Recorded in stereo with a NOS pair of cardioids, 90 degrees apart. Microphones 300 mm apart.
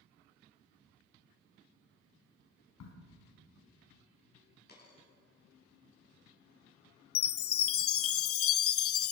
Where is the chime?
50° left, 0.5 m.